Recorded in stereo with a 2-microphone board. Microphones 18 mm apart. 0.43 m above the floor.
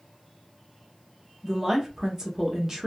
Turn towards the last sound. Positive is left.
turn(degrees=-25)  # may be behind; listen again after turning